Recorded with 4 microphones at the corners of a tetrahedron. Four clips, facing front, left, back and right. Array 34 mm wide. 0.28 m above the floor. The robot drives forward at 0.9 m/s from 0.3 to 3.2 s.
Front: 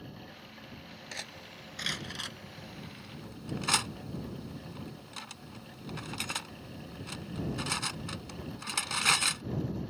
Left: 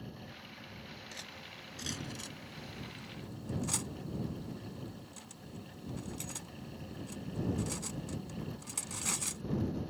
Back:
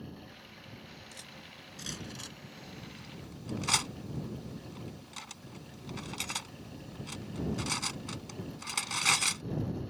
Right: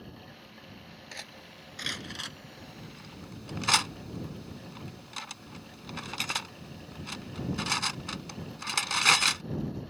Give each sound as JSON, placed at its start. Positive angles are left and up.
{"t": 1.1, "sound": "cutlery clinking", "azimuth_deg": -30}